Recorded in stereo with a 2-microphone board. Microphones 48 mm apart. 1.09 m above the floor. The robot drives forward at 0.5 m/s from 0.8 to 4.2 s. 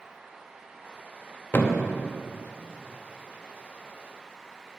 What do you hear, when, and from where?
1.5 s a thud: 40° left (ahead or behind), 0.5 m